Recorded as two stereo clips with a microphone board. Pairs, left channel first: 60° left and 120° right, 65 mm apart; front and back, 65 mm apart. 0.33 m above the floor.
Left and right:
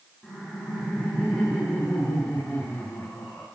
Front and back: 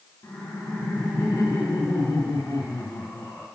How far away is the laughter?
About 2.5 m.